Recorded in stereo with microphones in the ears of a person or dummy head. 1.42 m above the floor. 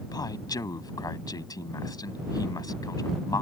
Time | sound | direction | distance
0.1 | a man speaking | 20° left (ahead or behind) | ?